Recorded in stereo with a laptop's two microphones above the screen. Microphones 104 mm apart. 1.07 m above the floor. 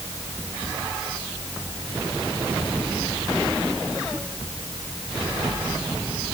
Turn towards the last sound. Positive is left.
No sound to turn to.